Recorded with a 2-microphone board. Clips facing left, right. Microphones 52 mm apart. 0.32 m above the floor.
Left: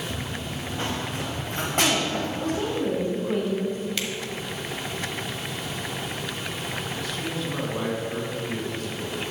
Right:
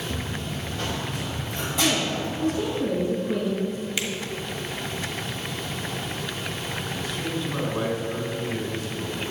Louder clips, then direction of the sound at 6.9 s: Right 1 dB; 5° right (ahead or behind).